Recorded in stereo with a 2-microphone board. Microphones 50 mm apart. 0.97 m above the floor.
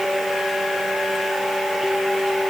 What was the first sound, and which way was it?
Only background noise.